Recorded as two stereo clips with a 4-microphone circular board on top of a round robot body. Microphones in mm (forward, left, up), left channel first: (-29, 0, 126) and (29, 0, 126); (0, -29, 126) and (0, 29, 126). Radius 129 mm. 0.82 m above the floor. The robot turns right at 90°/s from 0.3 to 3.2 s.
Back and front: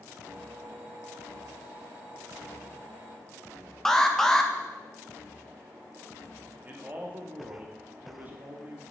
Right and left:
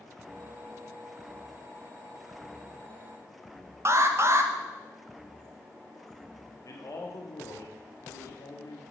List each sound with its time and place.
3.9 s an alarm: 100° left, 1.2 m
6.7 s a man speaking: 60° right, 1.4 m